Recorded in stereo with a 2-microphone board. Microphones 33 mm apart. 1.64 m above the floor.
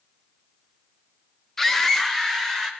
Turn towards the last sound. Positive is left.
turn(degrees=15)  # may be behind; listen again after turning